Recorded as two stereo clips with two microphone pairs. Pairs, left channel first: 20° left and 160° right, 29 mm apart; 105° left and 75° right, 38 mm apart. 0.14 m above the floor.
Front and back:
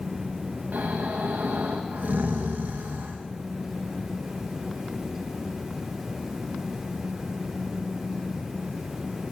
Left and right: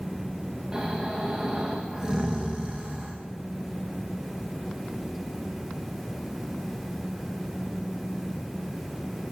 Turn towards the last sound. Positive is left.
turn(degrees=-150)